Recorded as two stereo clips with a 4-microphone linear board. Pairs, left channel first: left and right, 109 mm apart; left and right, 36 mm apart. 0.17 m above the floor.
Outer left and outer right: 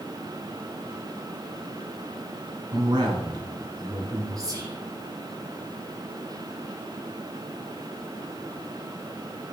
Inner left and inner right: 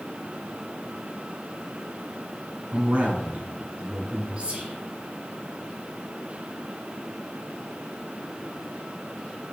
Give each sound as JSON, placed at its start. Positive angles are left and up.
{"t": 2.7, "sound": "a man speaking", "side_deg": -45, "distance_m": 2.0}
{"t": 4.4, "sound": "whispering", "side_deg": -35, "distance_m": 1.9}